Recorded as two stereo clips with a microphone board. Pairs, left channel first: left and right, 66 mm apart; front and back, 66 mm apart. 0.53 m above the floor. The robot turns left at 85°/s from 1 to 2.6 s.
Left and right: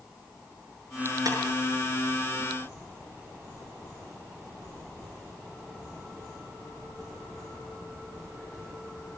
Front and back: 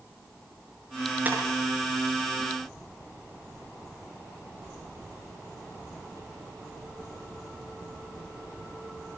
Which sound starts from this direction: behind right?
Breaking glass, at 1.2 s.